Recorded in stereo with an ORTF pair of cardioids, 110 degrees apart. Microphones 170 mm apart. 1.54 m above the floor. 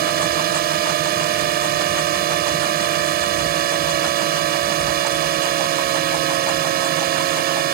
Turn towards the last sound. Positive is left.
turn(degrees=-65)